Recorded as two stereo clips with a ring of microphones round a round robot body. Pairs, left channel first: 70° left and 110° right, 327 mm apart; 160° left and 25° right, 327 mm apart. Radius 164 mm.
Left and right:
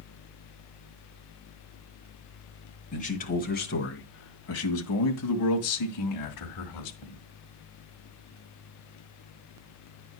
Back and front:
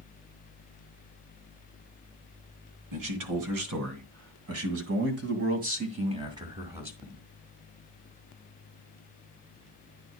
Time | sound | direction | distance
2.9 | a man speaking | straight ahead | 2.5 m